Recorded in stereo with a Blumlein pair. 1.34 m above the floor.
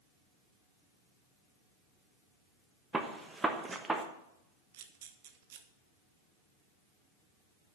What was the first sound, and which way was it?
A gunshot, 10° right.